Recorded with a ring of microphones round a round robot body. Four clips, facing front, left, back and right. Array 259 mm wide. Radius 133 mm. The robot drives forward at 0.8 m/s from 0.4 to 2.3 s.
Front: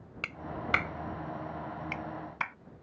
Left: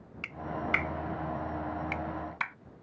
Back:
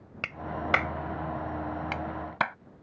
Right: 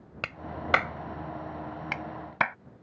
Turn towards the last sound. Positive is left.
turn(degrees=-130)